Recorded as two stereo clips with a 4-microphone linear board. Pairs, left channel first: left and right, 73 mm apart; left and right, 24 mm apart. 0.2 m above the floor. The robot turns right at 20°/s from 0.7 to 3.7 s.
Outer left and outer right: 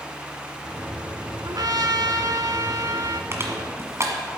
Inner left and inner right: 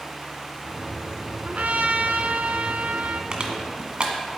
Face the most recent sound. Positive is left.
turn(degrees=-40)  # may be behind; listen again after turning